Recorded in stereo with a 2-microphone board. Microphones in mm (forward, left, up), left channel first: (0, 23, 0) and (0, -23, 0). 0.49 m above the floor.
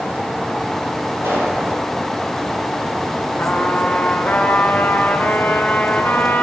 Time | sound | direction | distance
1.2 | a pop | 90° right | 5.5 m
3.4 | a trumpet | 45° left (ahead or behind) | 1.8 m